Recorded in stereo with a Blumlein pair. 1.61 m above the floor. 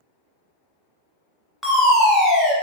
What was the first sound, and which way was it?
A fire alarm, 10° left.